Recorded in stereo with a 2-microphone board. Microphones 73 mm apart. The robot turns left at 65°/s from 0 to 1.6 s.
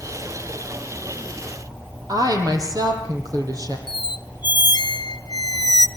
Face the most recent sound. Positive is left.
turn(degrees=80)